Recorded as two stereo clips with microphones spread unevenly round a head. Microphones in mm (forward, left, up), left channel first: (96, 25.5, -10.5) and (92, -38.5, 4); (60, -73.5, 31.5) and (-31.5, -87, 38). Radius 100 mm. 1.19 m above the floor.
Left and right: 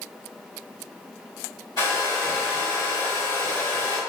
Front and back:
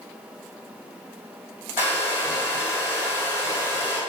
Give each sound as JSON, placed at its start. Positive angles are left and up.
{"t": 1.8, "sound": "a hair dryer", "azimuth_deg": 130, "distance_m": 2.0}